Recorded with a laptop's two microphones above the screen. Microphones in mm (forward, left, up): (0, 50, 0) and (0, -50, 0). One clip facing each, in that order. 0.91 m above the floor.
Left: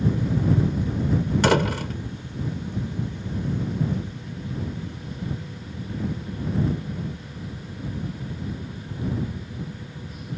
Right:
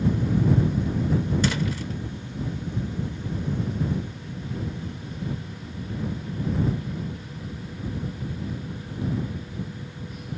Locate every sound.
1.4 s a door slam: 70° left (ahead or behind)